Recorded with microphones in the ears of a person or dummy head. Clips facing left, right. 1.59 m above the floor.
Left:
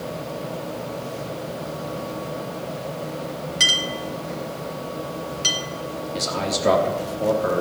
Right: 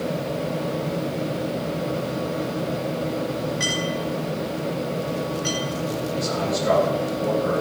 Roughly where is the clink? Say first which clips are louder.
Right 4 dB; left.